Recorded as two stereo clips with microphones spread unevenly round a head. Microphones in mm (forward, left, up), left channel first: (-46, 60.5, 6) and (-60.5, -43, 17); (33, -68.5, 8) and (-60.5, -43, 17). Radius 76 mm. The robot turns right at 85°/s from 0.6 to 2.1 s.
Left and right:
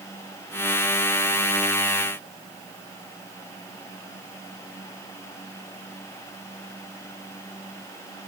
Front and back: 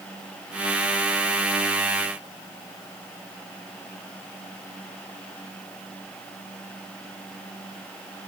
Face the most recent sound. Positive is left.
No sound to turn to.